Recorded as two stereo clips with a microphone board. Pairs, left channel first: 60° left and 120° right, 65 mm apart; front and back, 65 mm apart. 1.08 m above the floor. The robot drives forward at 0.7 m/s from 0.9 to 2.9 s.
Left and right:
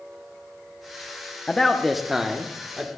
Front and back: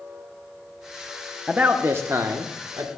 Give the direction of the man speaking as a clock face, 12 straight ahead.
8 o'clock.